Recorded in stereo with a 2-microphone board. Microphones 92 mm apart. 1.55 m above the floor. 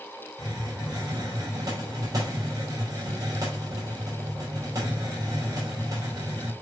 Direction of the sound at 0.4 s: 45° right (ahead or behind).